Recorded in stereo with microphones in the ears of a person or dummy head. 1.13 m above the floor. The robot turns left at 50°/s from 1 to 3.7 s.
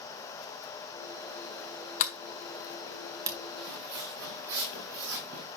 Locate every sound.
2.0 s a sliding door: 40° left (ahead or behind), 1.4 m; by 3.4 s 20° right (ahead or behind), 1.4 m
3.6 s footsteps: 75° right (ahead or behind), 5 m